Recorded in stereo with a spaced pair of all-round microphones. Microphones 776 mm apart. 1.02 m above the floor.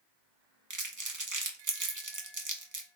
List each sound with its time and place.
0.7 s crumpling: 25° right (ahead or behind), 0.6 m